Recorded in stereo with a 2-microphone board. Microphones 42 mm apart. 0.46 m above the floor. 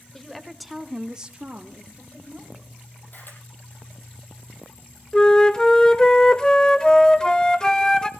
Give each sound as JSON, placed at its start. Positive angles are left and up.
{"t": 0.1, "sound": "a woman speaking", "side_deg": 10, "distance_m": 1.6}
{"t": 3.1, "sound": "a camera shutter", "side_deg": 55, "distance_m": 4.5}
{"t": 5.1, "sound": "a flute", "side_deg": 20, "distance_m": 0.7}